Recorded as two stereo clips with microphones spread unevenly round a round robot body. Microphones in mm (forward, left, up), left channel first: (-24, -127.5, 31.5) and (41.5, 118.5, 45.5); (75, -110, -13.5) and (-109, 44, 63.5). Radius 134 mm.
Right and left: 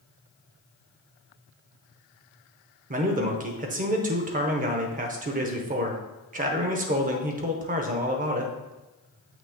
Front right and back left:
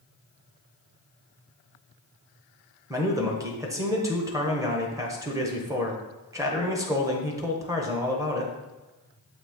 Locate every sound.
2.9 s a man speaking: 45° left, 0.9 m